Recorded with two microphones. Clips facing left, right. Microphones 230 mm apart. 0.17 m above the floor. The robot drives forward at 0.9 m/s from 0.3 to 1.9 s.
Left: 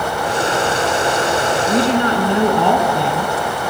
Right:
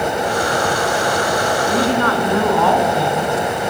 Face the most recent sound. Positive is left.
turn(degrees=20)  # may be behind; listen again after turning